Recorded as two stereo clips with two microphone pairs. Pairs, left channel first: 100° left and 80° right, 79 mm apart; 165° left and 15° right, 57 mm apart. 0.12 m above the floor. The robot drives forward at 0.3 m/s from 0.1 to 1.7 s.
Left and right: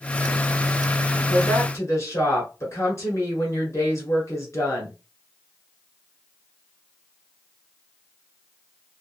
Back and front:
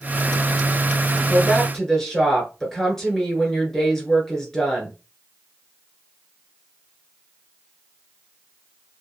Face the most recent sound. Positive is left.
turn(degrees=85)